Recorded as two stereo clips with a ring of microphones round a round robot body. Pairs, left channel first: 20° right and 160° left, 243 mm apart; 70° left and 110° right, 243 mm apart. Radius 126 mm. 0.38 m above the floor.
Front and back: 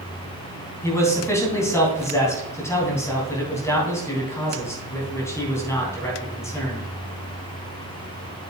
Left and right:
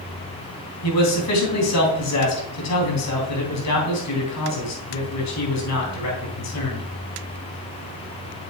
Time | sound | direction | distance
0.8 | a man speaking | 55° left | 3.5 m